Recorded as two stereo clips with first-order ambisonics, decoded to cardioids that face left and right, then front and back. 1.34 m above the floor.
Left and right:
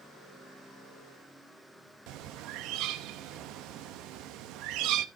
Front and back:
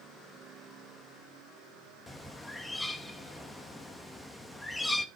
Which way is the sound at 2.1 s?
80° right.